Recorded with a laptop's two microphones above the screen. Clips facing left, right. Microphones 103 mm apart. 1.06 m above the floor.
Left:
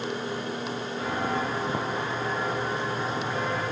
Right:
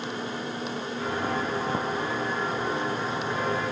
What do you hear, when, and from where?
1.0 s footsteps: 15° left (ahead or behind), 1.7 m; by 3.6 s centre (ahead or behind), 3 m